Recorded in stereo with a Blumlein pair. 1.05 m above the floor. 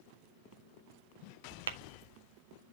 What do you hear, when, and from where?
1.7 s tapping: 65° right, 0.8 m